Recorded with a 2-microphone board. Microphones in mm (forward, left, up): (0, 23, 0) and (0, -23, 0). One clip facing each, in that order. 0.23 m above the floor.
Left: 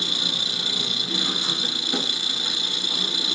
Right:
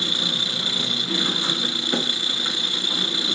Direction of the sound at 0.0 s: 25° right (ahead or behind).